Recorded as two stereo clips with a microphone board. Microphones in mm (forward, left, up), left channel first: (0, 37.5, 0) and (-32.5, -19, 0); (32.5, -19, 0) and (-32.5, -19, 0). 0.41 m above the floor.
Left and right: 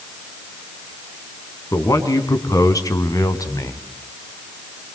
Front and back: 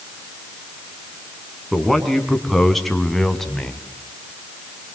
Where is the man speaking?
90° left, 3.5 m; by 3.8 s 85° left, 2 m.